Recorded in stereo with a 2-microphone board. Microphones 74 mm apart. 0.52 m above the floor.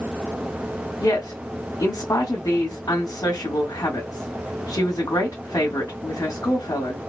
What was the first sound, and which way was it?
A woman speaking, 55° left (ahead or behind).